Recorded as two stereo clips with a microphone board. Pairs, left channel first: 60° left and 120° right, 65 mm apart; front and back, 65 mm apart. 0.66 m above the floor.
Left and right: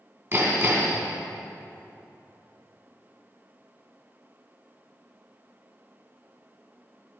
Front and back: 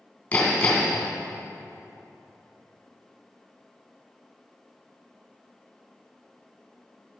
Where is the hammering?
70° right, 2.5 m.